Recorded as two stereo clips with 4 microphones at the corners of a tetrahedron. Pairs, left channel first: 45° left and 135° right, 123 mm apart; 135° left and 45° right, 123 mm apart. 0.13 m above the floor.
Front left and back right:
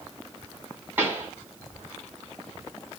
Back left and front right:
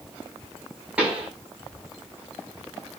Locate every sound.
1.0 s a pop: 105° right, 0.8 m